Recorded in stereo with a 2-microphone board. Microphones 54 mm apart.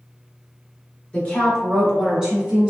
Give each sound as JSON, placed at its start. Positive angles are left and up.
{"t": 1.1, "sound": "a woman speaking", "side_deg": 25, "distance_m": 1.2}